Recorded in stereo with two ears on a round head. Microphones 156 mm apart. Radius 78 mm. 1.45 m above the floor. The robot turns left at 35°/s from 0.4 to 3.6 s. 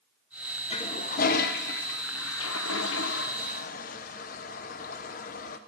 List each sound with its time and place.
0.7 s a toilet flushing: 30° left (ahead or behind), 0.9 m; by 5.6 s 45° left (ahead or behind), 0.9 m